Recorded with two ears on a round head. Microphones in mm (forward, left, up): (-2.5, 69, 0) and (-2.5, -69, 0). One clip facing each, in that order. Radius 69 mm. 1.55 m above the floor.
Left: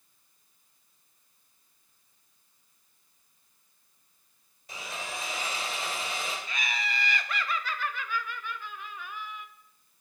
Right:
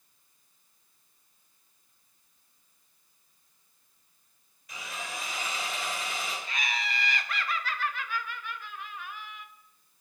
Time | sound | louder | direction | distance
4.7 | sawing | left 1 dB | 25° left (ahead or behind) | 1.9 m
6.5 | laughter | even | 80° left | 0.7 m